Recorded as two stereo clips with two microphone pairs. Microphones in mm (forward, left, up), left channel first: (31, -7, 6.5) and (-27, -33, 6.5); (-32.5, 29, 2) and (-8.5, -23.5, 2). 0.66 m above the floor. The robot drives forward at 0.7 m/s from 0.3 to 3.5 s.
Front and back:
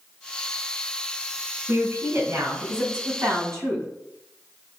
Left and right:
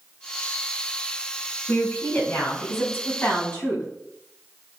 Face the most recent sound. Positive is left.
turn(degrees=165)